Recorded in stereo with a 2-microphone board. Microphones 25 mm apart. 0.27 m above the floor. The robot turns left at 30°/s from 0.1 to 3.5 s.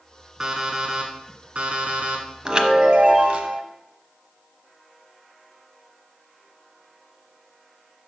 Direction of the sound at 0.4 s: 15° right.